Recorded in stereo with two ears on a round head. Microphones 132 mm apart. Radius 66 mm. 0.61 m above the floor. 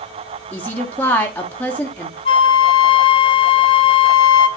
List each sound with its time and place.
0.5 s a woman speaking: 10° left (ahead or behind), 1.2 m
2.2 s a flute: 35° left (ahead or behind), 0.8 m